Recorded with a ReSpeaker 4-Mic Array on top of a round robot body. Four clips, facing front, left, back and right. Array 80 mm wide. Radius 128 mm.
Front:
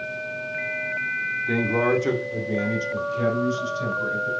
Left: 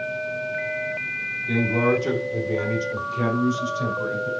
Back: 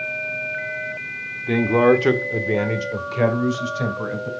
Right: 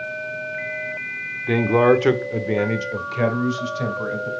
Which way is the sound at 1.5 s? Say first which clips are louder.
Right 6 dB, back 7 dB; 105° right.